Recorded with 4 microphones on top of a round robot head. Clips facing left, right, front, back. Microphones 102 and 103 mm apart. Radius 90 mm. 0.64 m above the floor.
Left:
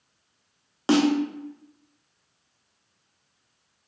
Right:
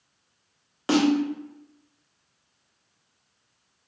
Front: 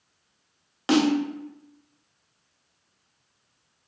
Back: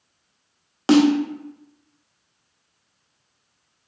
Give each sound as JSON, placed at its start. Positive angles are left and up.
{"t": 0.9, "sound": "a snare drum", "azimuth_deg": 140, "distance_m": 0.8}